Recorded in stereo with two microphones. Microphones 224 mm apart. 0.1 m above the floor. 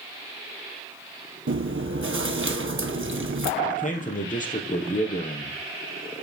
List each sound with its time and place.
1.5 s chewing: 60° right (ahead or behind), 0.9 m
3.6 s a man speaking: 35° left (ahead or behind), 3 m